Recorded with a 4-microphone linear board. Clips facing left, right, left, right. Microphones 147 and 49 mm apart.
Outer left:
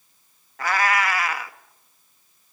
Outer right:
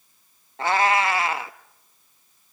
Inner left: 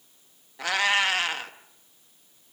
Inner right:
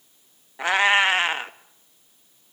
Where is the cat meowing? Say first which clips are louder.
Outer right 2 dB, inner right 5 dB; 25° right (ahead or behind), 0.7 m.